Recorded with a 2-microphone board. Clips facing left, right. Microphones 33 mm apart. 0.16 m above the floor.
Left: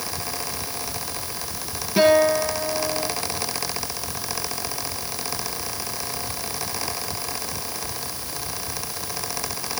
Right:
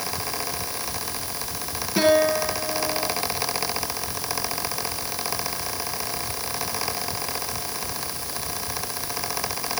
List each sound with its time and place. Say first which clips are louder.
2.0 s a guitar: left 2 dB; 5° left (ahead or behind), 7.5 m